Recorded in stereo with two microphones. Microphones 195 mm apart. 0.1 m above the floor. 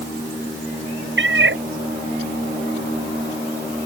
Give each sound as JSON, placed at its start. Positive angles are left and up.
{"t": 1.2, "sound": "a cat meowing", "side_deg": -65}